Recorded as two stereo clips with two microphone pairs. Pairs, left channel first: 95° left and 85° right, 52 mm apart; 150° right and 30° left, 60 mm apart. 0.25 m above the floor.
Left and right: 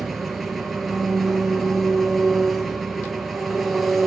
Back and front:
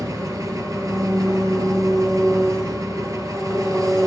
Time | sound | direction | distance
0.0 | an engine running | 10° left | 1.4 m